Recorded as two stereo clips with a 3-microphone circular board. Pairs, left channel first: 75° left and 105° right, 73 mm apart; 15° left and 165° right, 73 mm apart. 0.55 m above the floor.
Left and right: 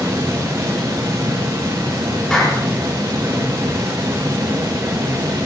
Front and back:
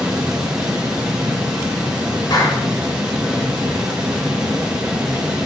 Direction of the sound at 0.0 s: 85° right.